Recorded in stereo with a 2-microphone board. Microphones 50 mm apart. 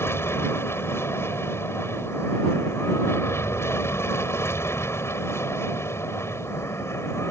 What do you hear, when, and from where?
0.0 s an aircraft: 55° left (ahead or behind); by 7.3 s 60° left (ahead or behind)